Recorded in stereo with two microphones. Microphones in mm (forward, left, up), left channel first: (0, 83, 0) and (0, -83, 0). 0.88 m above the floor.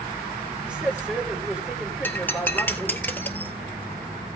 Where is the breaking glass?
10° left (ahead or behind), 1.4 m.